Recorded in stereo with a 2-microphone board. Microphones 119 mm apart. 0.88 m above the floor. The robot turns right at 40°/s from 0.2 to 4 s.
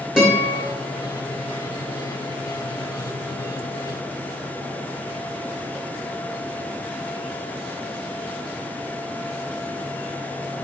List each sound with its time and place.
0.2 s a guitar: 5° right (ahead or behind), 1.7 m; by 0.6 s 25° right (ahead or behind), 1.7 m